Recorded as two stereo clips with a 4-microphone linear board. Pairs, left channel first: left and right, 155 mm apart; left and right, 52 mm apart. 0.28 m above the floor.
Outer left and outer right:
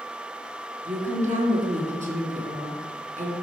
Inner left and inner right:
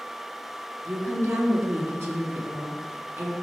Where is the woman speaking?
50° right (ahead or behind), 3 m.